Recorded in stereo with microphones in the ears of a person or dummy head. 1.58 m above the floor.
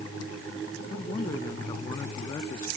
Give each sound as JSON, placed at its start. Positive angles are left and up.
{"t": 0.9, "sound": "a man speaking", "side_deg": 25}